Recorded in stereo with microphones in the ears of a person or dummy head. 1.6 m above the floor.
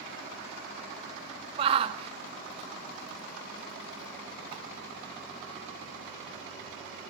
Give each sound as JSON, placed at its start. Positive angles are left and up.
{"t": 1.6, "sound": "a shout", "side_deg": -35, "distance_m": 0.9}